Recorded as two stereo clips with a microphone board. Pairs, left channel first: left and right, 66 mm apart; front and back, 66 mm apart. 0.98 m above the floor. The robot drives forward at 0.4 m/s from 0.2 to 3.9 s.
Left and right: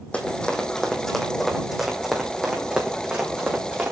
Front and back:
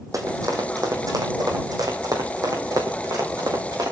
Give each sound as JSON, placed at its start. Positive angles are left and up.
{"t": 0.1, "sound": "running footsteps", "azimuth_deg": 160, "distance_m": 2.5}